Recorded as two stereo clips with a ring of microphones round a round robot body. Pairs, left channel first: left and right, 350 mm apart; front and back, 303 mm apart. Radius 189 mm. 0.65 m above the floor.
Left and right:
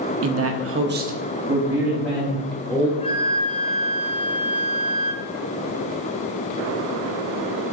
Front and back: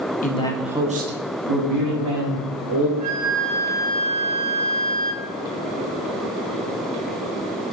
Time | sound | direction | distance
0.2 | a man speaking | 55° right | 0.8 m
3.0 | a flute | 165° left | 0.8 m